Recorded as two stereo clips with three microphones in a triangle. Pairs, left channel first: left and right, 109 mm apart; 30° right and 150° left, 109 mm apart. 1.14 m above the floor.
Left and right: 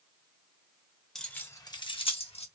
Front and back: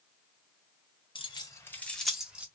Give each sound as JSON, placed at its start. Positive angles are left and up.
{"t": 1.1, "sound": "keys jangling", "azimuth_deg": 5, "distance_m": 0.7}